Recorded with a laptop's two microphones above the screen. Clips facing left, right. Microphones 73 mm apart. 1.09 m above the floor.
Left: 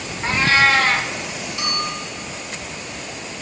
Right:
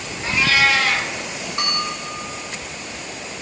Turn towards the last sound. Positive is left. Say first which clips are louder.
# right 1 dB
turn(degrees=-50)  # may be behind; listen again after turning